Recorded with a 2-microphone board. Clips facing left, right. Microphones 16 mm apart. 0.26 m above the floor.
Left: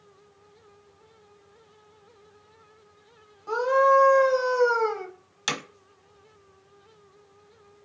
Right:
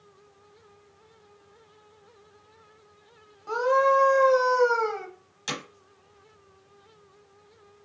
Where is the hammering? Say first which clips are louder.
Left 4 dB; 30° left (ahead or behind), 1.2 m.